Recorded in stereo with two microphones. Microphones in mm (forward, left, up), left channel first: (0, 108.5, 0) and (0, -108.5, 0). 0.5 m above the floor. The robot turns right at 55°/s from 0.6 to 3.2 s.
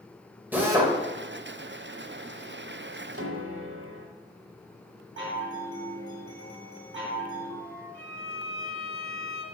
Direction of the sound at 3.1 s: 80° right.